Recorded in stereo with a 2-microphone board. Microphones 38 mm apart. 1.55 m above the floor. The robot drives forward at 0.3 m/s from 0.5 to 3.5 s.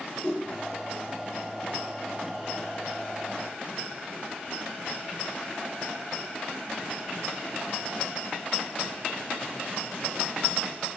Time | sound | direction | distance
0.2 | a whoosh | 35° left (ahead or behind) | 1.4 m